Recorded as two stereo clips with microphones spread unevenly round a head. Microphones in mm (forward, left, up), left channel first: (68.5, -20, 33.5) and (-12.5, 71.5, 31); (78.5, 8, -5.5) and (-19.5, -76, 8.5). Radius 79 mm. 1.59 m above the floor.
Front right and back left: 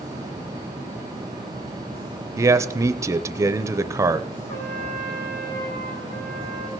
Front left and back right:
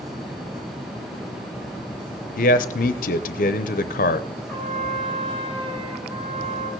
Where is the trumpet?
40° right, 3.5 m.